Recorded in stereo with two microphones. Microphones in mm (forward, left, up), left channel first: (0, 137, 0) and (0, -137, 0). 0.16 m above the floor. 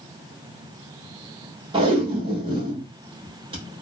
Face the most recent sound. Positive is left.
turn(degrees=-20)  # may be behind; listen again after turning